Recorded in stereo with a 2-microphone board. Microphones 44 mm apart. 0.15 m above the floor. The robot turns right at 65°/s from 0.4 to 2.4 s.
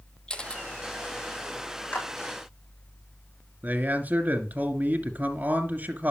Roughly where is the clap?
Left.